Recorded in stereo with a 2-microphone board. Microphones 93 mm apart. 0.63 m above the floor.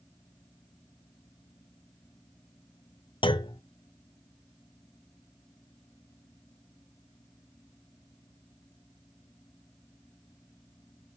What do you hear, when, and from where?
3.2 s a clunk: 65° left (ahead or behind), 0.5 m